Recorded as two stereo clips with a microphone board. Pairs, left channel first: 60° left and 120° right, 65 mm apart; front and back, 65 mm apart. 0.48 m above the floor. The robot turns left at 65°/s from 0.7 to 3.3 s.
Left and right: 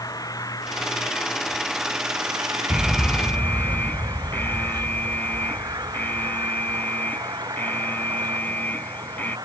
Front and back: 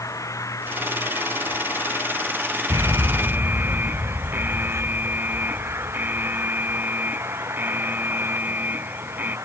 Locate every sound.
0.0 s an engine running: 35° left; by 9.5 s 135° right
2.7 s an alarm: 160° left; by 9.4 s 120° left